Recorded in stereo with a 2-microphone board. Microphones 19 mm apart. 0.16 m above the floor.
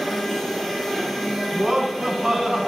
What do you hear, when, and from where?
1.5 s laughter: 35° right (ahead or behind), 1.3 m